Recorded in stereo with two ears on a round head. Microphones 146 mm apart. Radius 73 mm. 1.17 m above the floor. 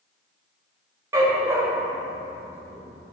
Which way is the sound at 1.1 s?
20° right (ahead or behind).